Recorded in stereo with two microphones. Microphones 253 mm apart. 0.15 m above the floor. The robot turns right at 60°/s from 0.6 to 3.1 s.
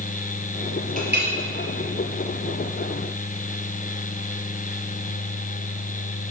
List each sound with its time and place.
1.0 s a clink: 30° right (ahead or behind), 2 m; by 1.3 s 50° right (ahead or behind), 2 m